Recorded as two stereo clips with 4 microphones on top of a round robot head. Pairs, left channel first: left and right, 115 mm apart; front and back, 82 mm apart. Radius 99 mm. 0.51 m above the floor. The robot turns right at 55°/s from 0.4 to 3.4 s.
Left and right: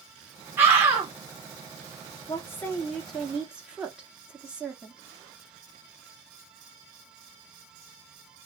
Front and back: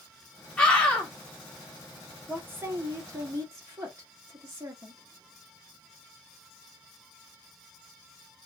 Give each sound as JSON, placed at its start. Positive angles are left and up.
{"t": 0.6, "sound": "a scream", "azimuth_deg": -60, "distance_m": 1.1}
{"t": 2.3, "sound": "a woman speaking", "azimuth_deg": 130, "distance_m": 1.2}